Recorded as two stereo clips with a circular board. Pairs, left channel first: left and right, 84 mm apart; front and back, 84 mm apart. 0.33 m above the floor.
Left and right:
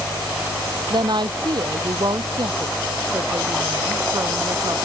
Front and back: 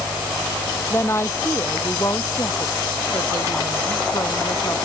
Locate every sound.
0.9 s a woman speaking: 60° right; by 4.8 s 45° right